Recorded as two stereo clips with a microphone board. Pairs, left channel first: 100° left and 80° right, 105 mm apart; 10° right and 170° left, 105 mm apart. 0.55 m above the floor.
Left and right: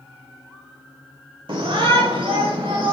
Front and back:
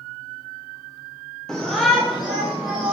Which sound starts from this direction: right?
A shout, at 1.5 s.